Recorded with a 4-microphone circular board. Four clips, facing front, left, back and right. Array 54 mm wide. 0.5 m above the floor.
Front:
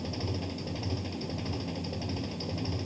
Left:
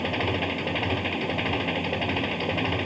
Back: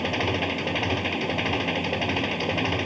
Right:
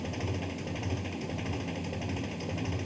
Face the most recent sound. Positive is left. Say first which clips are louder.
# left 10 dB, back 11 dB
turn(degrees=145)